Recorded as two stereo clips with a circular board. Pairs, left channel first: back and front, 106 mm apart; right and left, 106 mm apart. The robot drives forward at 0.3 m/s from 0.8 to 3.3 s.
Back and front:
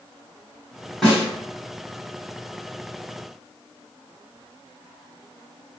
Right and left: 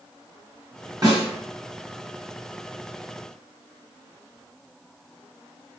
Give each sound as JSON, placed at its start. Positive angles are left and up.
{"t": 1.0, "sound": "a snare drum", "azimuth_deg": 95, "distance_m": 1.9}